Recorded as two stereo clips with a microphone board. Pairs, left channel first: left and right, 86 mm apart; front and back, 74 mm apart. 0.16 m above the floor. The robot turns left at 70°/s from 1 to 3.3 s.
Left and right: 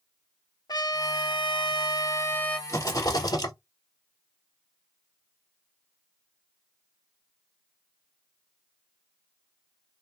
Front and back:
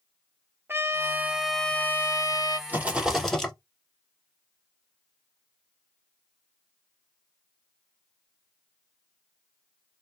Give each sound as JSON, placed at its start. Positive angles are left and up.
{"t": 0.7, "sound": "a trumpet", "azimuth_deg": 125, "distance_m": 0.7}
{"t": 2.7, "sound": "a rattle", "azimuth_deg": 125, "distance_m": 1.1}